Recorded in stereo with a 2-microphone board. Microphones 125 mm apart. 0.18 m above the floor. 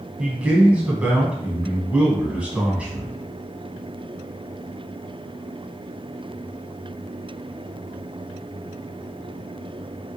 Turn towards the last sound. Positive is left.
turn(degrees=-10)  # may be behind; listen again after turning